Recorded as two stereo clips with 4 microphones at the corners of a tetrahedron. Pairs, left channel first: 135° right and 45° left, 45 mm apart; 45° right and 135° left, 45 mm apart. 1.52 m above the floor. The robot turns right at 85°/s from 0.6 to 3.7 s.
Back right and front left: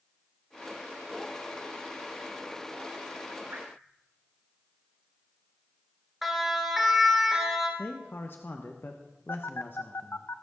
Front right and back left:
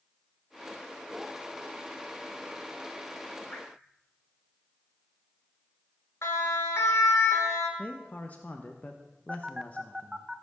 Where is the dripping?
10° left, 3.5 m; by 3.7 s 25° left, 3.5 m.